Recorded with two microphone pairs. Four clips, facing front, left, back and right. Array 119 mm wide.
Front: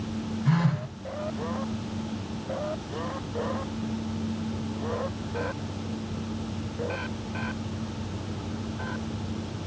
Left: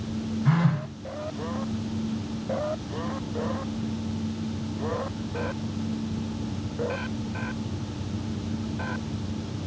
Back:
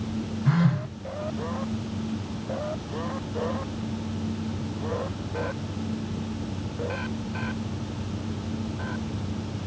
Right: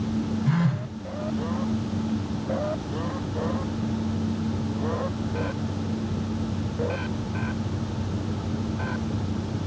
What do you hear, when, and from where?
0.5 s a phone buzzing: 105° left, 1.3 m